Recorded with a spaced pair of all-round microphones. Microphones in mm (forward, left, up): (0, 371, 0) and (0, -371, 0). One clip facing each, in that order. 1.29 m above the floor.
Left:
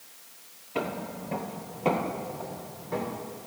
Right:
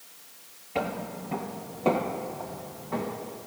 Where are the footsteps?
25° right (ahead or behind), 1.4 m; by 3.1 s 55° left (ahead or behind), 3.5 m.